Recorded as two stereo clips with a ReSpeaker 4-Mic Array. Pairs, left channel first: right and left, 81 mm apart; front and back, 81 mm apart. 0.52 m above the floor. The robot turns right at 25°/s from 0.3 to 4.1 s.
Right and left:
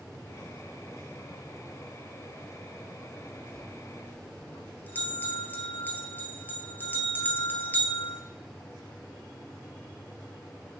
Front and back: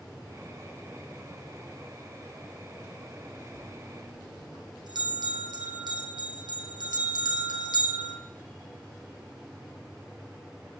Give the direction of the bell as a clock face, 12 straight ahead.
6 o'clock.